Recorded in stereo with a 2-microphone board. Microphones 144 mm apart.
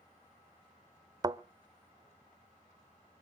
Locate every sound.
1.2 s a thud: 30° right (ahead or behind), 0.5 m